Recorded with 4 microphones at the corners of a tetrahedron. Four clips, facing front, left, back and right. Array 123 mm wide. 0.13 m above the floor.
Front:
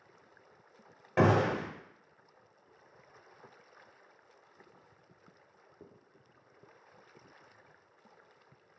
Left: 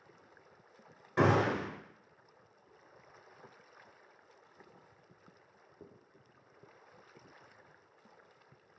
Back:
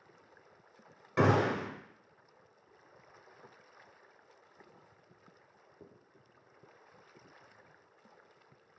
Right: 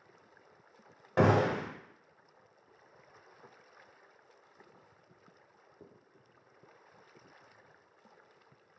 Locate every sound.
1.2 s a gunshot: 65° right, 1.1 m